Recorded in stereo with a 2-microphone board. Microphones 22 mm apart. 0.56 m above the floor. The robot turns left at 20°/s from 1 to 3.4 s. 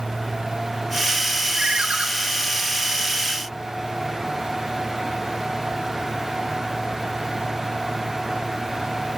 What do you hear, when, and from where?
1.6 s a ringtone: 55° right (ahead or behind), 1.2 m